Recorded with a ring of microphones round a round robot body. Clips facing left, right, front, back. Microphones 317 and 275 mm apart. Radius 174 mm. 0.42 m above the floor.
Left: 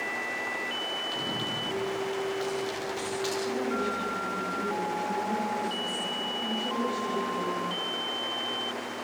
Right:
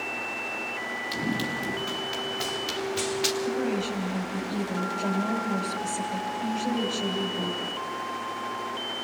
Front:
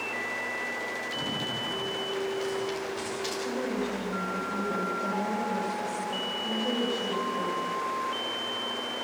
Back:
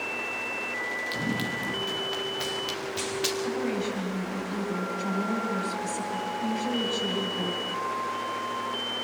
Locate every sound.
1.1 s running footsteps: 145° right, 2.5 m; by 3.3 s 140° right, 4 m
3.4 s a woman speaking: 125° right, 3 m